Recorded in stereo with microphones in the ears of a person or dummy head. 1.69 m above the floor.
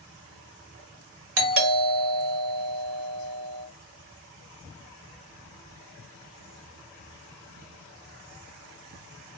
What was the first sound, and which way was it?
A doorbell, 65° right (ahead or behind).